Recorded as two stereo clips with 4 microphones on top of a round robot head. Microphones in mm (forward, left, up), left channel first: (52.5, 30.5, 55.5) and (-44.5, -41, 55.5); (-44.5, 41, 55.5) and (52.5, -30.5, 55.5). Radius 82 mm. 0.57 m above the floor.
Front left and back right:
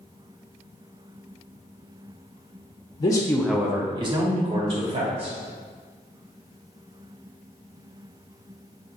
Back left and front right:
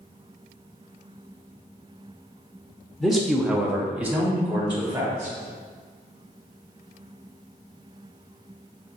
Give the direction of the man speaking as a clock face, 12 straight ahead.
10 o'clock.